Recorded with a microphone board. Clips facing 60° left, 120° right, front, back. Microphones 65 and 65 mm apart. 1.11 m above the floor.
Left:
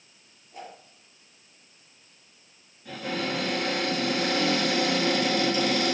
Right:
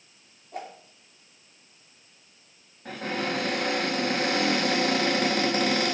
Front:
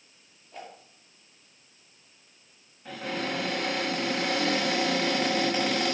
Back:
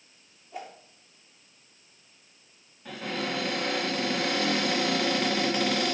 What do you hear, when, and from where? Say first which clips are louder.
0.5 s a whoosh: right 5 dB, back 3 dB; 100° right, 2.5 m
2.9 s a cupboard door: right 1 dB, even; 85° right, 5.5 m